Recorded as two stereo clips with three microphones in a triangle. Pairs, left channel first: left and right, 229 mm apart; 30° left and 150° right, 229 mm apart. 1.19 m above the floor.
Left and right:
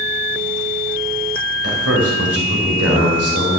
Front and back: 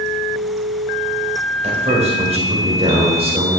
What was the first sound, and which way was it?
A man speaking, 90° right.